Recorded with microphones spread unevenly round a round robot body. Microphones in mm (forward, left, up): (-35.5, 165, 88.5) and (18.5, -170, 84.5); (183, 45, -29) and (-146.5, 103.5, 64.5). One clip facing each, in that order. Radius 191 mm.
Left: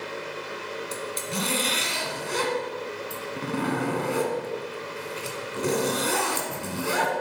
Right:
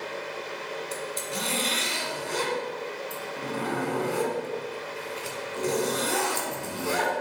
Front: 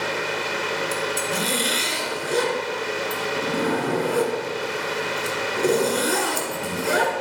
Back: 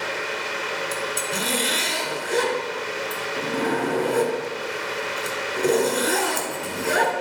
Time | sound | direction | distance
0.9 | a zipper | 75° left | 1.4 m